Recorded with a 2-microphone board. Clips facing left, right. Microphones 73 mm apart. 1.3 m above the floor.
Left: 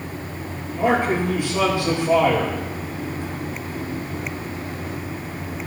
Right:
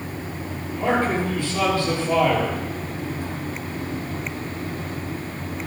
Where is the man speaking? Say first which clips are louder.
Left 2 dB; 20° left (ahead or behind), 5.5 m.